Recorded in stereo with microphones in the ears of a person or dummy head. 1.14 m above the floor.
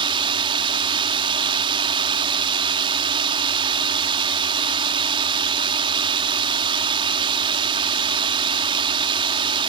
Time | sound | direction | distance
0.0 | a drone | 25° right (ahead or behind) | ?